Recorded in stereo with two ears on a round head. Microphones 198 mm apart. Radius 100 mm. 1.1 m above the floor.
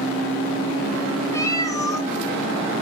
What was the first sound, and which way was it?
A cat meowing, 15° left (ahead or behind).